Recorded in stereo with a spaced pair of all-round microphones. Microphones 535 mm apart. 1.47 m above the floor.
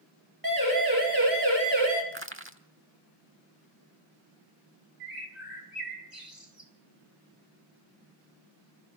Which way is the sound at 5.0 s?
70° right (ahead or behind).